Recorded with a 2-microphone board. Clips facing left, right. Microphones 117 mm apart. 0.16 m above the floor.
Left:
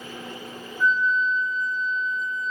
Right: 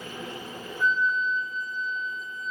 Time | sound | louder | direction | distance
0.8 | a flute | left 3 dB | 30° right (ahead or behind) | 0.7 m